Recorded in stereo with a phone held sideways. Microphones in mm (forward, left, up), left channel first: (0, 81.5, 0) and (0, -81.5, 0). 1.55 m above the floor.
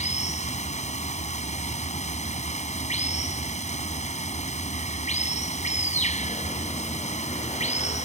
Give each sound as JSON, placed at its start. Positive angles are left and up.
{"t": 0.0, "sound": "running water", "side_deg": 45}